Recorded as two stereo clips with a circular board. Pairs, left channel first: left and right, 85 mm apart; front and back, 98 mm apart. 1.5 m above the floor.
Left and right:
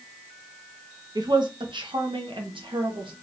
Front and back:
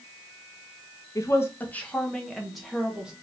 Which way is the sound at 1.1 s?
55° right.